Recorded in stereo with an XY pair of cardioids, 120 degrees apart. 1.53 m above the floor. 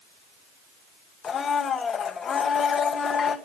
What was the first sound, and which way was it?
A blender, 35° left.